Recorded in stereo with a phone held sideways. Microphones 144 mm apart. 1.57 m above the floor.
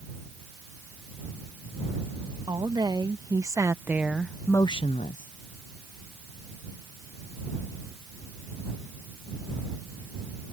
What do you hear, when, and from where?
2.5 s a woman speaking: 30° right (ahead or behind); by 5.3 s 65° left (ahead or behind)